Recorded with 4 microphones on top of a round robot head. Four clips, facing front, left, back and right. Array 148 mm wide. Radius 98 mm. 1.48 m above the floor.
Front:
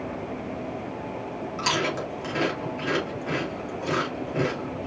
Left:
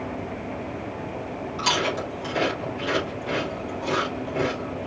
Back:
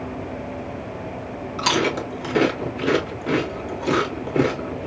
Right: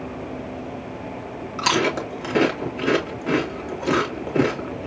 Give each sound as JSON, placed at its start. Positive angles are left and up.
{"t": 1.6, "sound": "chewing", "azimuth_deg": -120, "distance_m": 2.5}